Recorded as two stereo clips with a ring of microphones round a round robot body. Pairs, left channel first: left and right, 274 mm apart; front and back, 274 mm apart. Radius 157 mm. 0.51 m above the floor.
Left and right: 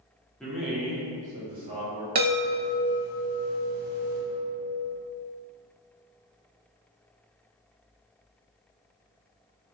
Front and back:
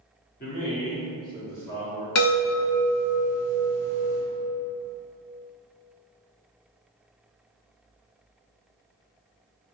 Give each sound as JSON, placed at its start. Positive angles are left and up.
{"t": 0.4, "sound": "a man speaking", "azimuth_deg": 5, "distance_m": 1.4}
{"t": 2.1, "sound": "a chime", "azimuth_deg": -30, "distance_m": 1.5}